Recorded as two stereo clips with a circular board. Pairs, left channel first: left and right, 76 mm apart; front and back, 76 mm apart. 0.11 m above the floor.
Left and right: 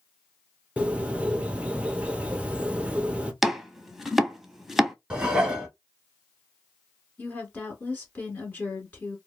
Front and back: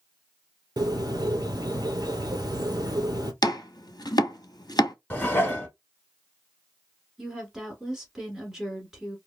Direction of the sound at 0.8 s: 160° right.